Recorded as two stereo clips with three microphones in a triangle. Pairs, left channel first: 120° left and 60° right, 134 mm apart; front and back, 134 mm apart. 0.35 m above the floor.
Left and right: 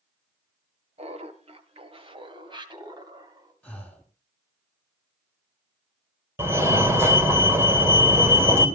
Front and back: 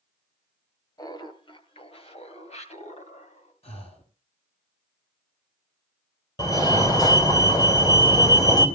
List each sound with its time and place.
1.0 s laughter: 50° right, 2 m; by 3.5 s straight ahead, 3 m
3.6 s breathing: 40° left, 3.5 m
6.4 s a fire alarm: 10° right, 2.5 m